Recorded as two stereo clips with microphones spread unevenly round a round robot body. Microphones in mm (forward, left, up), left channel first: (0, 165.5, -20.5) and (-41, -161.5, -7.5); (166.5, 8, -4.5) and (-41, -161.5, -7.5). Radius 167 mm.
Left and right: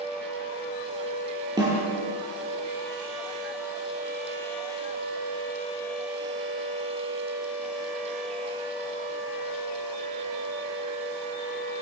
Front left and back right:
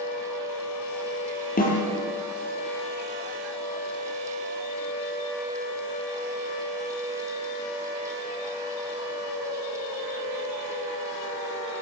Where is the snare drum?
20° right, 8.5 m.